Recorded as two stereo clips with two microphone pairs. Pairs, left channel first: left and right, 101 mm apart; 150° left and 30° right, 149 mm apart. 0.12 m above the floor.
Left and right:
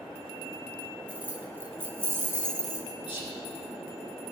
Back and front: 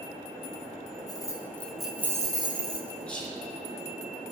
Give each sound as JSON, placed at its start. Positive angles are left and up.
{"t": 1.1, "sound": "keys jangling", "azimuth_deg": -160, "distance_m": 1.3}
{"t": 3.1, "sound": "whispering", "azimuth_deg": 65, "distance_m": 3.0}